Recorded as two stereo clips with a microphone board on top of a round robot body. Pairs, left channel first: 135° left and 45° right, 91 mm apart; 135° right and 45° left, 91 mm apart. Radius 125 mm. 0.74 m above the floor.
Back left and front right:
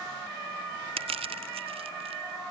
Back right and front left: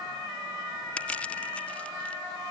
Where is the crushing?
60° right.